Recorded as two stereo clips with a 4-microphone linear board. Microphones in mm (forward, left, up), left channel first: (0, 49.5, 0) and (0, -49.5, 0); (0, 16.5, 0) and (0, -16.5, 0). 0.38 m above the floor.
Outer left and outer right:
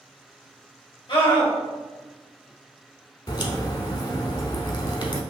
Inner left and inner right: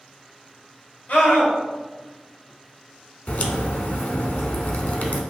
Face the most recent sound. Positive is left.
turn(degrees=50)  # may be behind; listen again after turning